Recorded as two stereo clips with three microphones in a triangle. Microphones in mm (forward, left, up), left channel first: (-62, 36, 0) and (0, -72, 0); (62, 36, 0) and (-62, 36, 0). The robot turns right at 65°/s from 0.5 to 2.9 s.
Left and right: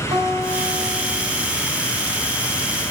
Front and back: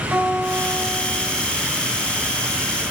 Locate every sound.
0.1 s a guitar: 95° right, 5.5 m; by 1.4 s 35° right, 5.5 m